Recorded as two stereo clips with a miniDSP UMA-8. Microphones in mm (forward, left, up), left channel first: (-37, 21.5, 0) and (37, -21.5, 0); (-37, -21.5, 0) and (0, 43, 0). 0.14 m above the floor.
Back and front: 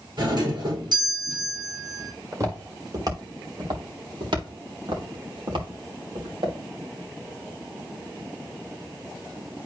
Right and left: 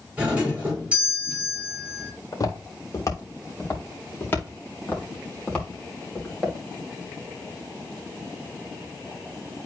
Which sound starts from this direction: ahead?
A doorbell, at 0.2 s.